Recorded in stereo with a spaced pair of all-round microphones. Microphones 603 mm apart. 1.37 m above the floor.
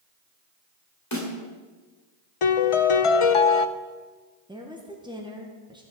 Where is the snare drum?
25° left (ahead or behind), 2.5 m.